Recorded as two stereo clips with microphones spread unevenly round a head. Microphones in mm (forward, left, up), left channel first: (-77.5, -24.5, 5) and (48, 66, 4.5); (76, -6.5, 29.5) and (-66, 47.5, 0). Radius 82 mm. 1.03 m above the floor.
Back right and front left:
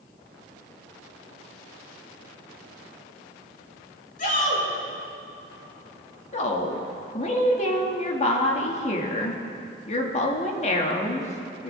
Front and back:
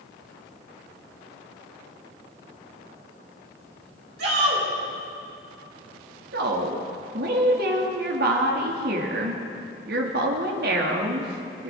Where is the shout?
Straight behind, 5.5 m.